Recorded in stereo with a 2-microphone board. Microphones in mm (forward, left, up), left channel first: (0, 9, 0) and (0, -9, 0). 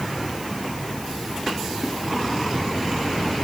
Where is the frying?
No frying in this recording.